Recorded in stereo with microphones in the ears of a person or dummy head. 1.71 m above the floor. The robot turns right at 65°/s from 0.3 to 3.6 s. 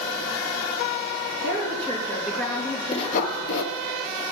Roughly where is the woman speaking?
Ahead right.